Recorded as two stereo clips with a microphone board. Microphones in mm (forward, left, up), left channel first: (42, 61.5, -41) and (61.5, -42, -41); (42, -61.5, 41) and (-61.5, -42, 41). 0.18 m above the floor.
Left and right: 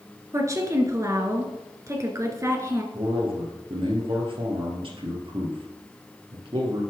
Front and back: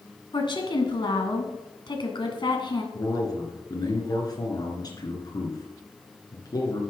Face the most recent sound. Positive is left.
turn(degrees=-55)